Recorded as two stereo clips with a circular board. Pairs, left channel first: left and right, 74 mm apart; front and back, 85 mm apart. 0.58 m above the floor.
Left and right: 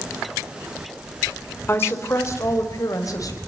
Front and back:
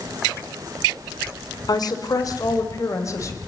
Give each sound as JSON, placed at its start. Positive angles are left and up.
{"t": 1.7, "sound": "a woman speaking", "azimuth_deg": 35, "distance_m": 2.5}